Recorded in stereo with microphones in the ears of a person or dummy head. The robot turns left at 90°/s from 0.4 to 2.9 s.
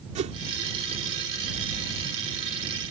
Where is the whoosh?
30° right (ahead or behind).